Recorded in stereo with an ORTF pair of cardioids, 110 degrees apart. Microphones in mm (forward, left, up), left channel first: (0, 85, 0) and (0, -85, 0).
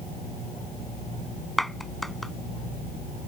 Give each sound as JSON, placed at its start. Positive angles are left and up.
{"t": 1.6, "sound": "a clap", "azimuth_deg": 0}